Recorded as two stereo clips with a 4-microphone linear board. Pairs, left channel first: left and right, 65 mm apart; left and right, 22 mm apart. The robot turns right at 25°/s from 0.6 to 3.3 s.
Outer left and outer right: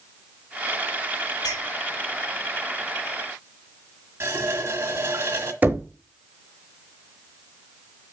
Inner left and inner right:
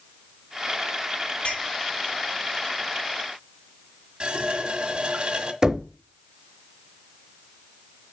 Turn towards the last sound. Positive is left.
turn(degrees=-25)  # may be behind; listen again after turning